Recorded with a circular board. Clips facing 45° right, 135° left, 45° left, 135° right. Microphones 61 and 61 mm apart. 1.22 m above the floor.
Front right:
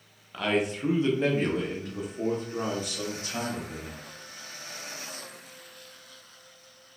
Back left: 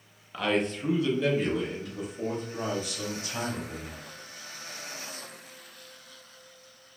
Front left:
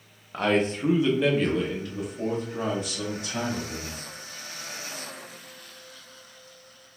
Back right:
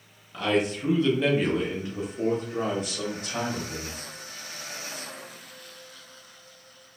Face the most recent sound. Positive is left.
turn(degrees=-95)